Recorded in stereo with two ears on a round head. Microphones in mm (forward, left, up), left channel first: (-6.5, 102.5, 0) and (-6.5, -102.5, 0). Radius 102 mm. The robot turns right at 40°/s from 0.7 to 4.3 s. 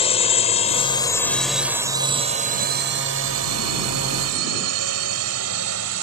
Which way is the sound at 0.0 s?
25° left (ahead or behind).